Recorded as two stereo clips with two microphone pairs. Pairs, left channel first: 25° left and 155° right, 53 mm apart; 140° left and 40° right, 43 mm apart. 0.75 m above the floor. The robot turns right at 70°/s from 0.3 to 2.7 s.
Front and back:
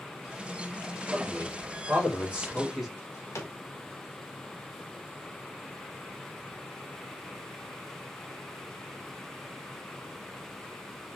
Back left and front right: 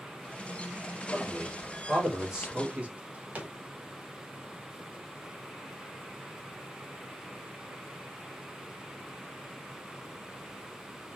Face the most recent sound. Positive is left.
turn(degrees=10)